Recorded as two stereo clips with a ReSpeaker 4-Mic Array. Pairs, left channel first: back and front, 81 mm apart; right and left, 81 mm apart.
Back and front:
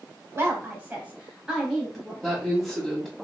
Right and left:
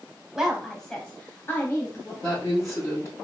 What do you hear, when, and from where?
0.3 s a woman speaking: 15° left, 1.2 m; by 2.1 s 95° right, 1.3 m
2.2 s a woman speaking: 90° right, 1.8 m